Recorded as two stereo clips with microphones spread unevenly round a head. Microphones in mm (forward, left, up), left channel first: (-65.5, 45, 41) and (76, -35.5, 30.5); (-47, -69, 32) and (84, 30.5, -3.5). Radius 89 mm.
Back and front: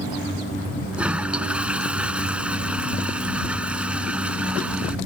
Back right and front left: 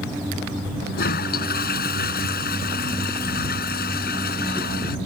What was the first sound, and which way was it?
A toilet flushing, 115° right.